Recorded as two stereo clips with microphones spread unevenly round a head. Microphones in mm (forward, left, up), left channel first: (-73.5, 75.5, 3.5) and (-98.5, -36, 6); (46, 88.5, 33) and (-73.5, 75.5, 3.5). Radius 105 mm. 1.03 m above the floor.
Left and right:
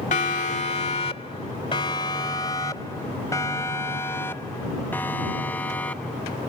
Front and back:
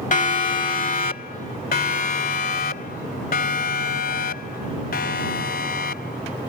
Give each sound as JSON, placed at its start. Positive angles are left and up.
{"t": 0.1, "sound": "a siren", "azimuth_deg": 30}